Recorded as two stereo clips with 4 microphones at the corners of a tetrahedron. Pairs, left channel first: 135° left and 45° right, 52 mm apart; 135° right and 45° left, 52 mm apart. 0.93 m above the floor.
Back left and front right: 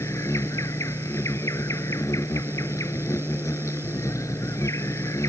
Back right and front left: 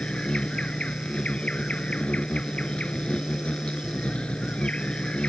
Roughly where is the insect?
Behind left.